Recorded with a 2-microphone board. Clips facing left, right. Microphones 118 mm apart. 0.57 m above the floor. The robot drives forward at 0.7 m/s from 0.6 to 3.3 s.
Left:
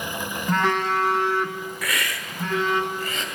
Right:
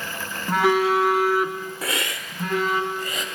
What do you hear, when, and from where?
0.5 s a phone buzzing: 10° right (ahead or behind), 0.8 m; by 2.8 s 5° right (ahead or behind), 2.5 m
1.8 s a hiss: 30° right (ahead or behind), 0.6 m; by 3.2 s 10° right (ahead or behind), 1.6 m